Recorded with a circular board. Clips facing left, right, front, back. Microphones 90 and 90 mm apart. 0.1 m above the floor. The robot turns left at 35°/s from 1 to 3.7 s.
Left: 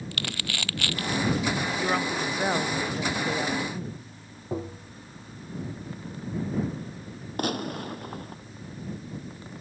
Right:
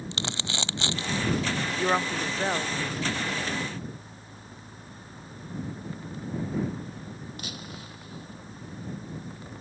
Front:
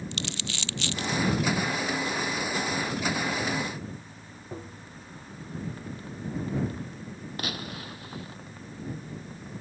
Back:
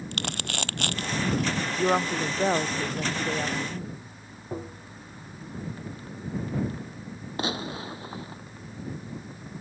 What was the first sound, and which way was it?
Crumpling, 155° right.